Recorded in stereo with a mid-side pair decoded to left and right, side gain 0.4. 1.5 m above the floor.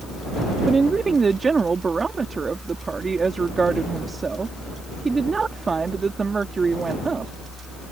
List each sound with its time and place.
0.7 s a woman speaking: 40° right